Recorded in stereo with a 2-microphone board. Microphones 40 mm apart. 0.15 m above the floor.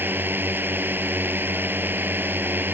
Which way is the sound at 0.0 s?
55° right (ahead or behind).